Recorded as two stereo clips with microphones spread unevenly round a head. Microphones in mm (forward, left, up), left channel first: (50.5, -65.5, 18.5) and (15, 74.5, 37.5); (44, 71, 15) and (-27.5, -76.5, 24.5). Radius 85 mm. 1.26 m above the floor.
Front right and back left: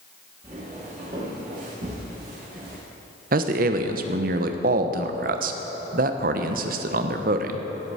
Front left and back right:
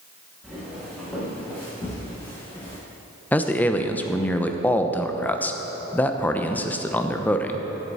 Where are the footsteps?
160° left, 5 m; by 2.8 s 135° left, 5 m.